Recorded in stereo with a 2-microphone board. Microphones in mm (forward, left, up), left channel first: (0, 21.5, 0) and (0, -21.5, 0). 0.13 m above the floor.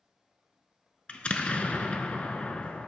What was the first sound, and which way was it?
An explosion, 30° left (ahead or behind).